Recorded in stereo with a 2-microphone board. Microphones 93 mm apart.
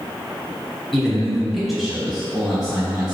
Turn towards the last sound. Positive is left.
turn(degrees=-5)  # may be behind; listen again after turning